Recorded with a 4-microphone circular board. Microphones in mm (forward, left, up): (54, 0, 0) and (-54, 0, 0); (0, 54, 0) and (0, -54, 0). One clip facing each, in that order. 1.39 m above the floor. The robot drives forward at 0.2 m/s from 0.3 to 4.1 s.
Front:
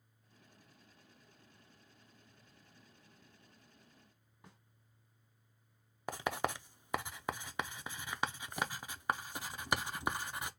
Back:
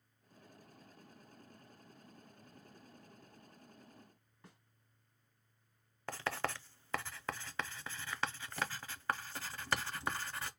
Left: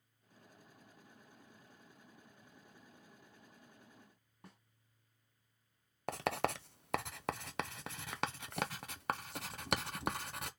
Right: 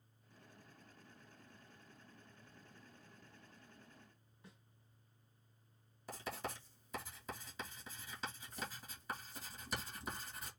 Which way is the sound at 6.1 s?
75° left.